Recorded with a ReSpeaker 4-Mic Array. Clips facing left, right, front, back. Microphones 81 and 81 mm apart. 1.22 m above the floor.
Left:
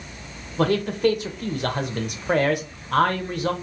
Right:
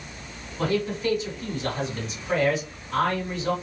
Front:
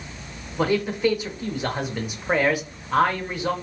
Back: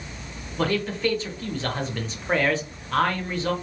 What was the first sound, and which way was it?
A man speaking, 75° left.